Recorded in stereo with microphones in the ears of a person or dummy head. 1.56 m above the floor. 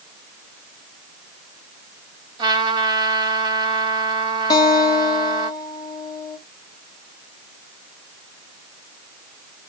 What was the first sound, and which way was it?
A trumpet, 25° right (ahead or behind).